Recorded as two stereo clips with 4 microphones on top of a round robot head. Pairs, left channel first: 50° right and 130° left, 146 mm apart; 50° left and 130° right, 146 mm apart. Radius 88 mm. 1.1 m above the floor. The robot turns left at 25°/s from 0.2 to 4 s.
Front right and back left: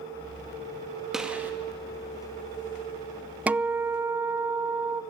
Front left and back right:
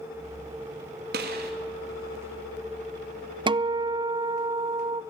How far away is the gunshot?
About 2 m.